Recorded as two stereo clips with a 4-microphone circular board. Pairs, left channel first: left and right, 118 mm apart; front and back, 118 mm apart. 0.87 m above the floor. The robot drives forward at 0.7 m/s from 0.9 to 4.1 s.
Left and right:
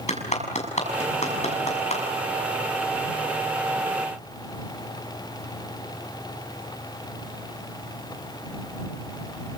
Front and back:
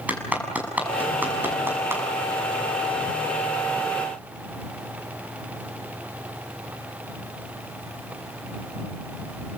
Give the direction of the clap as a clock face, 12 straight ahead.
9 o'clock.